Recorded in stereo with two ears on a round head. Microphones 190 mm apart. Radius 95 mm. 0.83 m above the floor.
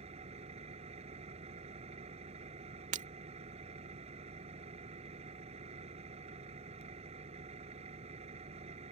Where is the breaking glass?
40° right (ahead or behind).